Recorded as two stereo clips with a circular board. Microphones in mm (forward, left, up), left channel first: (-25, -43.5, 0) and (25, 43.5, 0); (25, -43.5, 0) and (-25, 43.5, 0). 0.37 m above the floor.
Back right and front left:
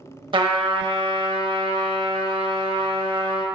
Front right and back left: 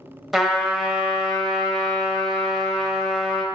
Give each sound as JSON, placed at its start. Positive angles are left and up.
{"t": 0.3, "sound": "a trumpet", "azimuth_deg": 35, "distance_m": 0.6}